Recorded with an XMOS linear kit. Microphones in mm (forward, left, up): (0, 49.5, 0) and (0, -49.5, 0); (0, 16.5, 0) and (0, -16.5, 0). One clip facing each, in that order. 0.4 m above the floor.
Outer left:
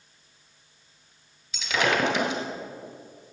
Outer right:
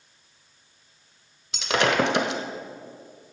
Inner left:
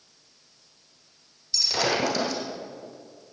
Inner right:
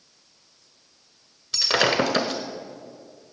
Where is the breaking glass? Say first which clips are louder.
Outer right 3 dB, inner right 4 dB; 70° right (ahead or behind), 1.4 m.